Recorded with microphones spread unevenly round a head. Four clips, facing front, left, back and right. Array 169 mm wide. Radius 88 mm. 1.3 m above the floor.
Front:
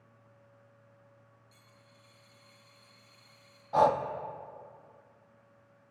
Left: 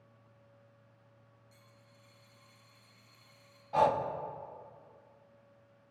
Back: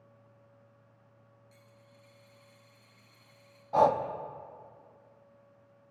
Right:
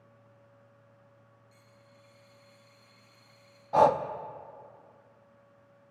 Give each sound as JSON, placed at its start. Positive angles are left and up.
{"t": 1.5, "sound": "a dropped coin", "azimuth_deg": 115, "distance_m": 4.5}
{"t": 3.7, "sound": "breathing", "azimuth_deg": -95, "distance_m": 0.7}